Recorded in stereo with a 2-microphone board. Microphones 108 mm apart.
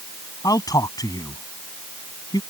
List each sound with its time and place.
0.4 s a man speaking: 35° left (ahead or behind)